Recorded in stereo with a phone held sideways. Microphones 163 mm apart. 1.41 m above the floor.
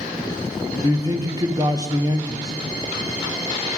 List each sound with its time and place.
0.8 s a man speaking: 20° right (ahead or behind), 0.8 m